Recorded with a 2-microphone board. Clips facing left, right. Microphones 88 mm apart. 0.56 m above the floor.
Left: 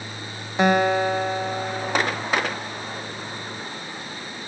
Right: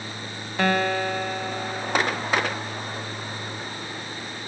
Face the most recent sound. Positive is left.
turn(degrees=20)  # may be behind; listen again after turning